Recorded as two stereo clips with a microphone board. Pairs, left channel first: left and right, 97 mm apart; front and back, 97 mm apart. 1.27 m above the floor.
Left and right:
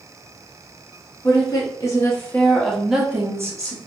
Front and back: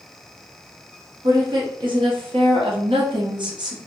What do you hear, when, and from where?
1.2 s a woman speaking: 135° left, 1.3 m; by 3.8 s 135° right, 0.9 m